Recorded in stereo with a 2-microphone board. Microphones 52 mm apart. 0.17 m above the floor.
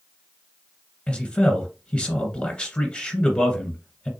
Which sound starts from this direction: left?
A man speaking, at 1.1 s.